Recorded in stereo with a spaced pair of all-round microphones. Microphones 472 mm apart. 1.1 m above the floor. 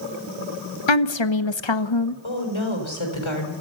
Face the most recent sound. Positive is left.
turn(degrees=80)